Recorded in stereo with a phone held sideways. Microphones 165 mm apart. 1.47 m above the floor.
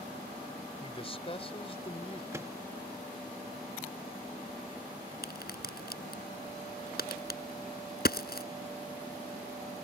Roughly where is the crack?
Left.